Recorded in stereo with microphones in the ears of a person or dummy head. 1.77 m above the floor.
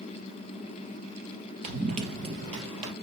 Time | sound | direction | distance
1.6 | running footsteps | 35° right (ahead or behind) | 2 m